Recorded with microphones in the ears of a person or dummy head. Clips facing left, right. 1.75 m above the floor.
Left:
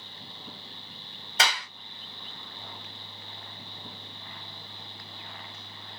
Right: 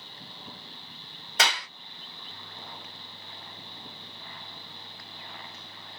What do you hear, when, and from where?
1.4 s a clap: 60° right (ahead or behind), 1.6 m